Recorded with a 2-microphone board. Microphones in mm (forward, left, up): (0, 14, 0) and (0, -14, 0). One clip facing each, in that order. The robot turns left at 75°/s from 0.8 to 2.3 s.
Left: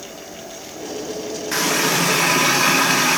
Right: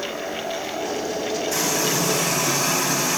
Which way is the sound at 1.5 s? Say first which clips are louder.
Left 7 dB; 130° left.